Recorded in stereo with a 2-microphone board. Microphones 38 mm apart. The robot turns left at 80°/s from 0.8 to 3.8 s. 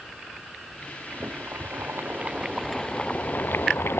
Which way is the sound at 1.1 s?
50° right.